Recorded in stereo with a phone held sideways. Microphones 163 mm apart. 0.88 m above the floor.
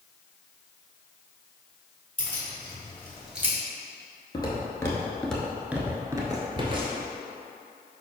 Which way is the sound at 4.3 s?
25° left (ahead or behind).